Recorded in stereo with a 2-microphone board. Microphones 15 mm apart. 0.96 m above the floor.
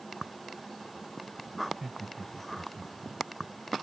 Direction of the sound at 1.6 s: 40° right (ahead or behind).